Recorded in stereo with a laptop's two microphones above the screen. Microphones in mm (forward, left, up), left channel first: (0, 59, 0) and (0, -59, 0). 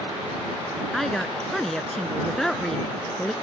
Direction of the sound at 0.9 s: 5° left (ahead or behind).